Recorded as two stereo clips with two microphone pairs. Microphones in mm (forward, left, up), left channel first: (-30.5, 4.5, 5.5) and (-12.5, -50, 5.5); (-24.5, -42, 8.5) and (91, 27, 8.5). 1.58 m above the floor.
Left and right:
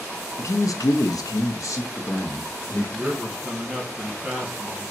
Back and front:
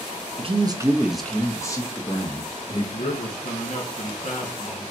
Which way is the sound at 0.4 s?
70° left.